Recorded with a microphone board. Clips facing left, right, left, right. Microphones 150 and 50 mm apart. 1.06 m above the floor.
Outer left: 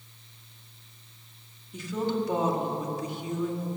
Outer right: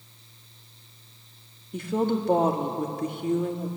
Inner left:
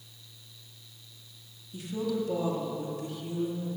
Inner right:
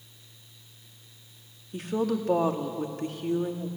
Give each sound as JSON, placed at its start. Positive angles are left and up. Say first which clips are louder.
{"t": 1.7, "sound": "a woman speaking", "louder": "outer right 4 dB, inner right 4 dB", "side_deg": -55, "distance_m": 1.9}